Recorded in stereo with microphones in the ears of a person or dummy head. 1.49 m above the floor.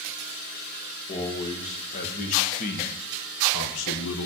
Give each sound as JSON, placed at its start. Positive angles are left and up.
{"t": 1.1, "sound": "a man speaking", "side_deg": 35, "distance_m": 2.0}